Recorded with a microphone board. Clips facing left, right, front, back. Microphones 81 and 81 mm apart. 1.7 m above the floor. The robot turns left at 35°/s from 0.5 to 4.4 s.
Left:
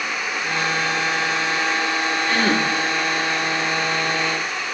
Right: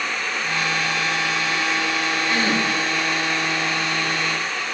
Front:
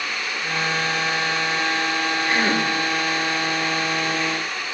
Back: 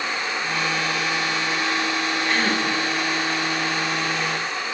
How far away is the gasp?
About 3 m.